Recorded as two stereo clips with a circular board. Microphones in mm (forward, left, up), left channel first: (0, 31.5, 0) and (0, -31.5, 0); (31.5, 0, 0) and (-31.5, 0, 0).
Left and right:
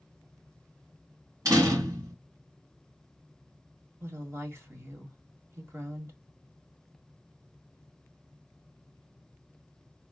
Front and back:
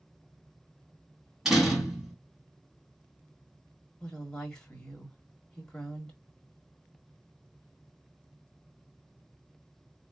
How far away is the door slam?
About 2 m.